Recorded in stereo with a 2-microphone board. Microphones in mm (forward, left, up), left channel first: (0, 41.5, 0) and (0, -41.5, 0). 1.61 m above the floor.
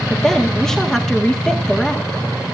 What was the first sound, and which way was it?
A woman speaking, 5° left (ahead or behind).